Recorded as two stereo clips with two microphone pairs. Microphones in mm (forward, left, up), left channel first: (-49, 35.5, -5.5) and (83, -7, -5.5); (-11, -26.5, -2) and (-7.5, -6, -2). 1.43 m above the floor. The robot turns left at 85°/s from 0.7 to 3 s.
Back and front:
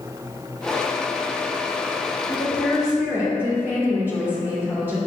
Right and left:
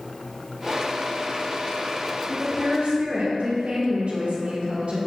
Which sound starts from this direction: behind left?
A woman speaking, at 2.3 s.